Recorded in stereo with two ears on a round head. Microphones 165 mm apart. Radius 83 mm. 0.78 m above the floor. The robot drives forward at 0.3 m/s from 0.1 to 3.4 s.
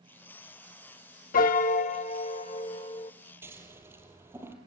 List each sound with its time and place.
1.3 s a piano: 50° left (ahead or behind), 0.9 m; by 3.1 s 30° left (ahead or behind), 1.3 m
3.4 s scissors: 15° right (ahead or behind), 4 m